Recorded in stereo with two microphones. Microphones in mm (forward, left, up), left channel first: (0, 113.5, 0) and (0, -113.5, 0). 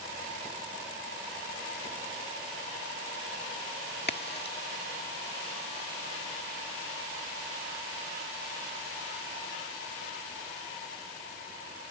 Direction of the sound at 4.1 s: 45° left (ahead or behind).